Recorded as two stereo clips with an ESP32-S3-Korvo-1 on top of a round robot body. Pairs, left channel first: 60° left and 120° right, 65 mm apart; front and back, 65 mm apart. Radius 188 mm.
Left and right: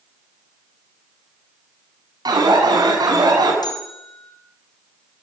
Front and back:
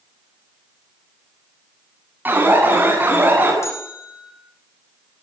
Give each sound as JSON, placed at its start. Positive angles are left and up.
{"t": 2.2, "sound": "an alarm", "azimuth_deg": -115, "distance_m": 8.5}
{"t": 3.6, "sound": "a bell", "azimuth_deg": 50, "distance_m": 5.0}